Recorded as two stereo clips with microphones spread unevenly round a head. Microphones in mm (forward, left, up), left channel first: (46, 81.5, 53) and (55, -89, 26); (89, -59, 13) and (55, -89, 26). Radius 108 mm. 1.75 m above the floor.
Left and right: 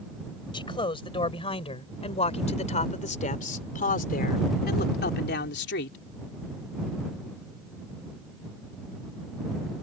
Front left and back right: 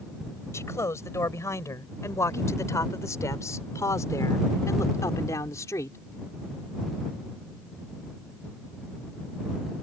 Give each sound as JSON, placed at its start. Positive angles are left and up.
{"t": 0.5, "sound": "a man speaking", "azimuth_deg": 35}